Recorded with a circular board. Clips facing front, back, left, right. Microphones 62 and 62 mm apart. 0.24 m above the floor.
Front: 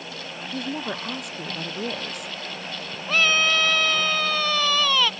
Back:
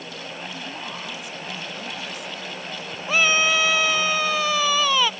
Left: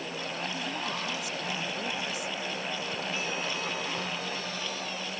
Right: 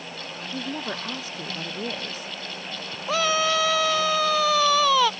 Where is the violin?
I don't hear a violin.